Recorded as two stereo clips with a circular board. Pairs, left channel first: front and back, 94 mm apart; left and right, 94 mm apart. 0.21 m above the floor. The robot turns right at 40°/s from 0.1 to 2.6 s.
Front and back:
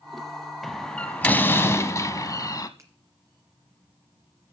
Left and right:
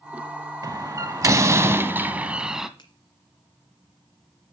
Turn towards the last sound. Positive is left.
turn(degrees=125)